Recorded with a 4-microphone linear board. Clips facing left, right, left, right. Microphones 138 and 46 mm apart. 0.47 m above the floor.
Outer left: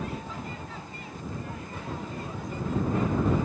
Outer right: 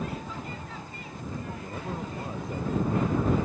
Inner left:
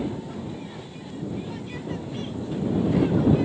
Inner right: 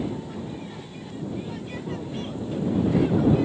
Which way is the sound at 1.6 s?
25° right (ahead or behind).